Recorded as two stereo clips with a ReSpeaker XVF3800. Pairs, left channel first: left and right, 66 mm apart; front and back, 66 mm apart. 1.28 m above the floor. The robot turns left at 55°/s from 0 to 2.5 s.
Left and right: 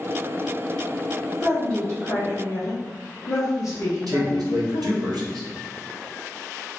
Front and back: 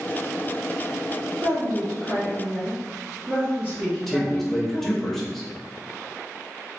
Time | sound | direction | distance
1.4 | a woman speaking | 175° left | 1.3 m
4.1 | a man speaking | 85° right | 1.1 m